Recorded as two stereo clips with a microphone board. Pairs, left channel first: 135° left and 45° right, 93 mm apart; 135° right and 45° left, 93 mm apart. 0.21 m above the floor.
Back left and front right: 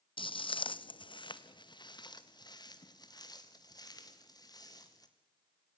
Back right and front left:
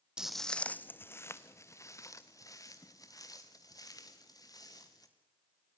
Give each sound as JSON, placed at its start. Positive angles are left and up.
{"t": 0.2, "sound": "footsteps", "azimuth_deg": 125, "distance_m": 0.5}